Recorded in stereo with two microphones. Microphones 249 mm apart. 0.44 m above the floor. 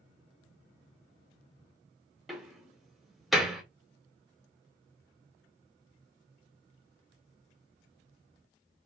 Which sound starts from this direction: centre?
A door slam, at 2.3 s.